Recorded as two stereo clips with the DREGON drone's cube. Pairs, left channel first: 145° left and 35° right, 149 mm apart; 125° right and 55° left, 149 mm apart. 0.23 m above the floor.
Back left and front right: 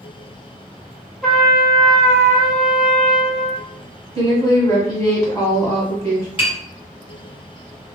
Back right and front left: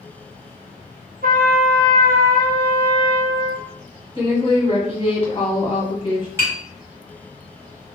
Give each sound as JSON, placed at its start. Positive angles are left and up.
{"t": 1.2, "sound": "a trumpet", "azimuth_deg": 55, "distance_m": 1.1}
{"t": 4.2, "sound": "a woman speaking", "azimuth_deg": -155, "distance_m": 1.2}
{"t": 6.4, "sound": "tapping", "azimuth_deg": 120, "distance_m": 1.8}